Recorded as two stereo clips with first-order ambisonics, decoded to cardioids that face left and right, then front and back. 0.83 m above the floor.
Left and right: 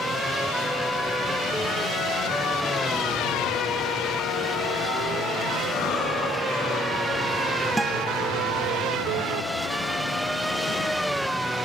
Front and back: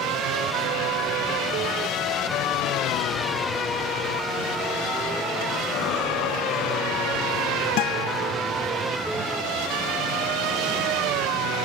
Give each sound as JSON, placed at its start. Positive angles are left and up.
{"t": 5.7, "sound": "breathing", "azimuth_deg": 40, "distance_m": 7.5}
{"t": 7.8, "sound": "a guitar", "azimuth_deg": -5, "distance_m": 1.2}